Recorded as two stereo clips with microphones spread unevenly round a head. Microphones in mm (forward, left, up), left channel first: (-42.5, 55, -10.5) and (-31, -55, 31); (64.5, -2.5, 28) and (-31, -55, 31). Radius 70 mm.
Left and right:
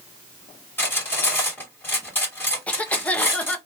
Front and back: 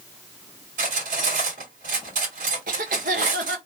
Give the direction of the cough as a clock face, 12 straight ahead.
6 o'clock.